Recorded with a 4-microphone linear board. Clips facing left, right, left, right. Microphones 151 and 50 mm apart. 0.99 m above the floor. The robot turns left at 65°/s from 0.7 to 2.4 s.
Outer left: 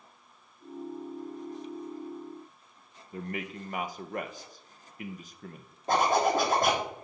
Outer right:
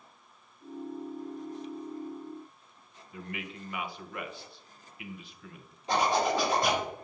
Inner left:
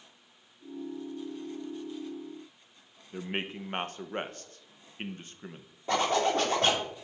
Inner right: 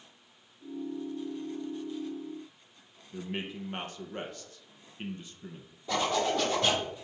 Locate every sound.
3.1 s a man speaking: 45° left (ahead or behind), 0.7 m
5.9 s a zipper: 50° left (ahead or behind), 2.5 m